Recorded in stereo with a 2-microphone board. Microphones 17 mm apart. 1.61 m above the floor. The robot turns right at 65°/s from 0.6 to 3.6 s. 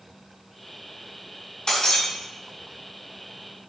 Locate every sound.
1.7 s breaking glass: 50° left (ahead or behind), 4.5 m; by 2.0 s 70° left (ahead or behind), 4.5 m